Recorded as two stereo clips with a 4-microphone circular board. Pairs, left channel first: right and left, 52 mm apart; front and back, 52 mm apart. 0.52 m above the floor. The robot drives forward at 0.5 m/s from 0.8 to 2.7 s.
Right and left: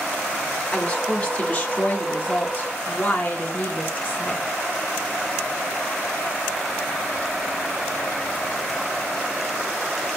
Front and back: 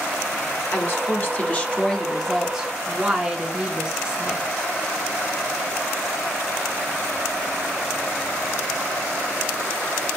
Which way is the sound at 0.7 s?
30° right.